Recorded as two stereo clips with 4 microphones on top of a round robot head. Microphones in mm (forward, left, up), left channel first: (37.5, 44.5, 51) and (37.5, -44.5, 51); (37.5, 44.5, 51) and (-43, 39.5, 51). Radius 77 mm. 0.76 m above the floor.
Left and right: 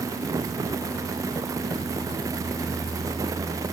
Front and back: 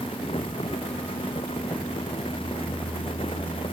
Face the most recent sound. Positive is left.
No sound to turn to.